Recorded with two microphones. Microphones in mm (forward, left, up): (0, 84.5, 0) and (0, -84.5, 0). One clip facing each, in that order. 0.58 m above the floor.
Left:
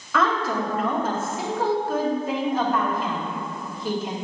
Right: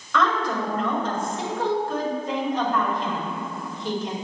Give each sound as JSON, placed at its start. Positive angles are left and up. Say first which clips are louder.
{"t": 0.1, "sound": "a woman speaking", "louder": "even", "side_deg": 10, "distance_m": 2.5}